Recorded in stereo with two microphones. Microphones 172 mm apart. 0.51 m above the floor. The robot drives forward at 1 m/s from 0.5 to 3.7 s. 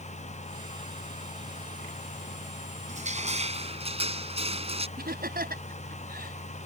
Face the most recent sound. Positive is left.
turn(degrees=-70)  # may be behind; listen again after turning